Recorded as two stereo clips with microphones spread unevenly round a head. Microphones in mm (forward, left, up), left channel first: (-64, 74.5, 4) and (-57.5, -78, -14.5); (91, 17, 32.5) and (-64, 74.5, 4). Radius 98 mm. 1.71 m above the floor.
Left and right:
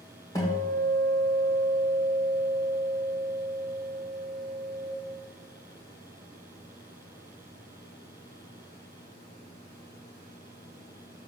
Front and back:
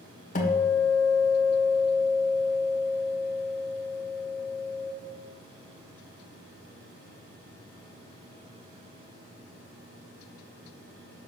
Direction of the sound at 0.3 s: 20° left.